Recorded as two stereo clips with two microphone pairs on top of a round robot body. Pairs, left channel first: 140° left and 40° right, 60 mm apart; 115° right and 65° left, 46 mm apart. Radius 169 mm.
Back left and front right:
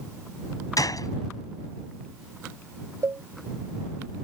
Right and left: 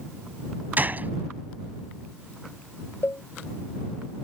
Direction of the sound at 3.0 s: 75° right.